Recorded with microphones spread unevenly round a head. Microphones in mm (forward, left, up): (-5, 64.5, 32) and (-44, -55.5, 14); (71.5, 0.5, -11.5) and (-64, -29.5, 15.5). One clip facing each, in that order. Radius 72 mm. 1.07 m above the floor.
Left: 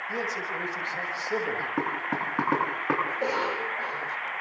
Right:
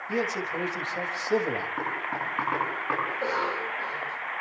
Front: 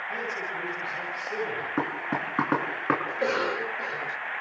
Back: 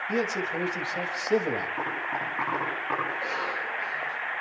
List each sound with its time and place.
0.1 s a man speaking: 170° right, 6.5 m
1.8 s knocking: 25° left, 9 m
3.1 s a cough: 5° right, 3.5 m